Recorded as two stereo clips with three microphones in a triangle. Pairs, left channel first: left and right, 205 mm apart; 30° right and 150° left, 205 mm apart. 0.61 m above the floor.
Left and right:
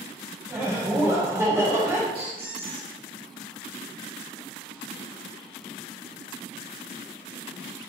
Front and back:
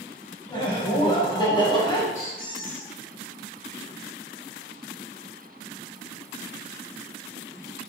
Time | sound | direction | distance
0.5 | laughter | 35° right | 0.7 m
2.1 | a squeak | 45° right | 1.4 m